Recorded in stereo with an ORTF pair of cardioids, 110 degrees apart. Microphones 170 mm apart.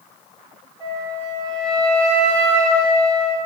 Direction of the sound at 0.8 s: 25° right.